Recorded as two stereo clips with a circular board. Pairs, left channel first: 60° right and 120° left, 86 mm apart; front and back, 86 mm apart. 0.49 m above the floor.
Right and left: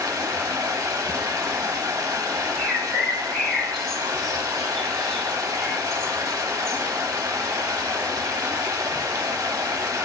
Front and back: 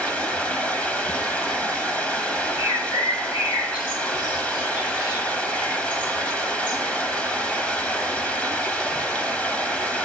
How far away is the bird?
About 1.4 m.